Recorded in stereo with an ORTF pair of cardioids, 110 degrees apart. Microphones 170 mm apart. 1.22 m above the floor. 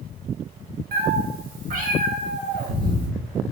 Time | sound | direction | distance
0.9 | a cat meowing | 70° right | 1.6 m